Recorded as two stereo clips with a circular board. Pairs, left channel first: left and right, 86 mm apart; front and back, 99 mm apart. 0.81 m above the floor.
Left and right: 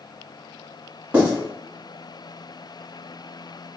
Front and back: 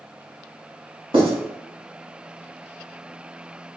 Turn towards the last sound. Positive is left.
turn(degrees=-160)